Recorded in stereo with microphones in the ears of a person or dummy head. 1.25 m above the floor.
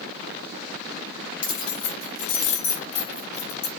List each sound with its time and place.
1.4 s keys jangling: 40° left (ahead or behind), 0.9 m; by 3.7 s 75° left (ahead or behind), 1.8 m